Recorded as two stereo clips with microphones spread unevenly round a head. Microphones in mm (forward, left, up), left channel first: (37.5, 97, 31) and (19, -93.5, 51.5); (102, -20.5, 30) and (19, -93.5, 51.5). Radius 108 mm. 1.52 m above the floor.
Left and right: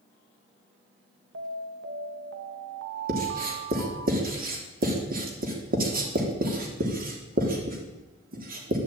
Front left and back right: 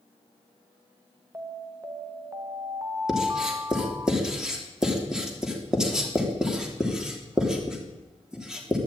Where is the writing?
55° right, 3.5 m.